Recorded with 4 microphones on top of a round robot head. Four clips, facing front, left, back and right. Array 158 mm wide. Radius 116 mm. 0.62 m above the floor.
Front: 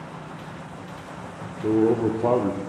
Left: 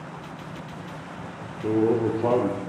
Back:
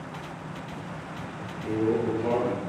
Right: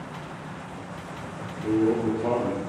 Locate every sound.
1.6 s a man speaking: 30° left, 1.6 m